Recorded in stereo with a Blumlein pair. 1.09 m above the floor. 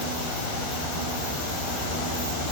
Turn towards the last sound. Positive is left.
No sound to turn to.